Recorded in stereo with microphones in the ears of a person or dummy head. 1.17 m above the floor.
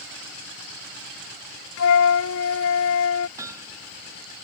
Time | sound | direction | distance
1.8 | a flute | 80° left | ?
3.4 | hammering | 15° right (ahead or behind) | ?